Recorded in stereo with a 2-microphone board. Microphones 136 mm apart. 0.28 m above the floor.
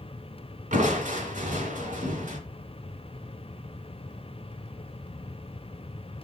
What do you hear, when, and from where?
0.7 s crushing: 65° right (ahead or behind), 2.5 m